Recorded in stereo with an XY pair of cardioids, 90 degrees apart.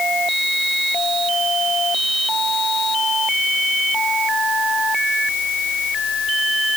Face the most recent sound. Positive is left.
No sound to turn to.